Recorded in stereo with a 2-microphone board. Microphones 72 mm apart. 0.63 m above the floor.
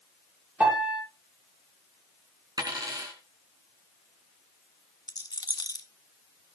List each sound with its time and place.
0.6 s a piano: 25° right (ahead or behind), 6 m
2.6 s a dropped coin: 60° right (ahead or behind), 3.5 m
5.1 s a rattle: 60° left (ahead or behind), 1.0 m